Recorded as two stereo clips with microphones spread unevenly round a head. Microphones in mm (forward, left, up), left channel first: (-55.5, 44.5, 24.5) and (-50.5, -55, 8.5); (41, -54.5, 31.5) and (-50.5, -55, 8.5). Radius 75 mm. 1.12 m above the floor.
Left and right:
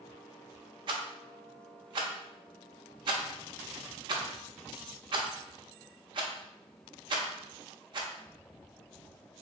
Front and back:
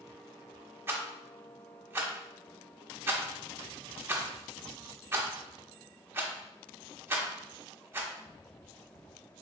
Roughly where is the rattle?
Right.